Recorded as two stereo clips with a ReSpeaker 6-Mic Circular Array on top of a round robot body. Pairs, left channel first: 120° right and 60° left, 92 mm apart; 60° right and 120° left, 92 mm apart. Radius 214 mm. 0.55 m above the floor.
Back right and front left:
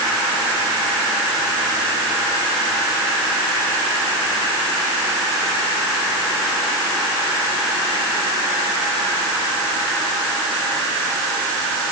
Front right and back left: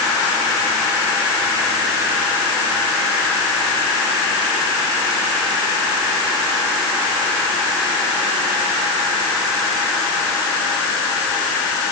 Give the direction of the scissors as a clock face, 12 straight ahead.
I don't hear scissors.